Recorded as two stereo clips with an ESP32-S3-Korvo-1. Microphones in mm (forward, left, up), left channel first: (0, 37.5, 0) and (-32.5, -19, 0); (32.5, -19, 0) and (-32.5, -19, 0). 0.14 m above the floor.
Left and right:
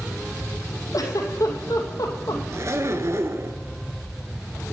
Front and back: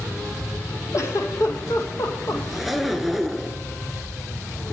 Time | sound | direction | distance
0.9 | a giggle | 35° left | 2 m
2.5 | a zipper | 95° right | 0.9 m